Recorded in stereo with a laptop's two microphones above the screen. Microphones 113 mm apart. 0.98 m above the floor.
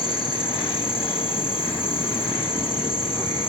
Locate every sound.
0.0 s an insect: 50° left (ahead or behind), 2 m